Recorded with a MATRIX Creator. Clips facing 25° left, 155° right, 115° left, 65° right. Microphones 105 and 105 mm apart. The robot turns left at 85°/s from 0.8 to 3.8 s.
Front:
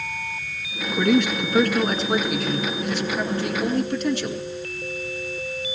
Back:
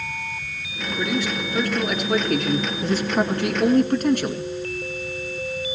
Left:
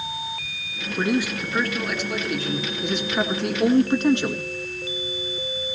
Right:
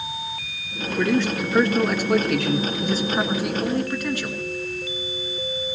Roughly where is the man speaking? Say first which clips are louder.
Front 6 dB, right 2 dB; ahead left.